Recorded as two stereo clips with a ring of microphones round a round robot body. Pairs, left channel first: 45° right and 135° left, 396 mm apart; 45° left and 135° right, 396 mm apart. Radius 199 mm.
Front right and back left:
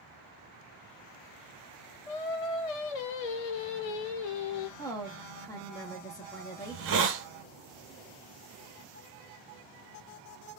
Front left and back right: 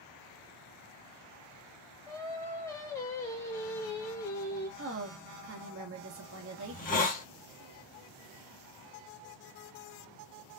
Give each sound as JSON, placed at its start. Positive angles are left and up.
{"t": 2.1, "sound": "singing", "azimuth_deg": -40, "distance_m": 0.7}
{"t": 4.8, "sound": "a woman speaking", "azimuth_deg": -120, "distance_m": 0.9}
{"t": 6.6, "sound": "a hiss", "azimuth_deg": 100, "distance_m": 0.7}